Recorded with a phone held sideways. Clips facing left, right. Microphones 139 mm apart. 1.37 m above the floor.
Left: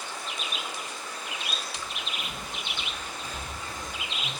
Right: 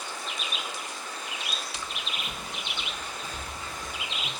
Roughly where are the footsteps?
Right.